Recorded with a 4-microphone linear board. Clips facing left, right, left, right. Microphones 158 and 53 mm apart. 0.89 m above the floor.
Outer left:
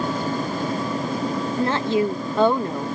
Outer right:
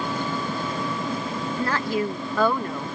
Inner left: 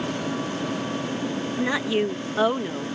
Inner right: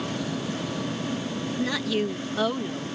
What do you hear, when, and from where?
1.6 s a woman speaking: 25° left (ahead or behind)